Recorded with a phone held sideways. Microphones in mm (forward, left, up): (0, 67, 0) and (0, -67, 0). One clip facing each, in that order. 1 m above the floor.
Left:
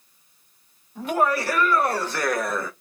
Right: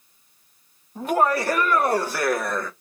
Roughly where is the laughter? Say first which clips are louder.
Right 2 dB; right.